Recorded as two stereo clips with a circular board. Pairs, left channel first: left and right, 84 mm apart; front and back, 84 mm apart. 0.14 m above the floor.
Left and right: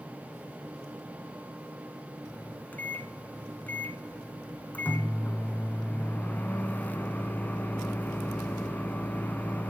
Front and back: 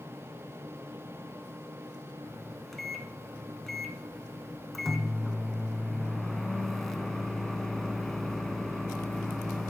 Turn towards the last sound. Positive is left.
turn(degrees=80)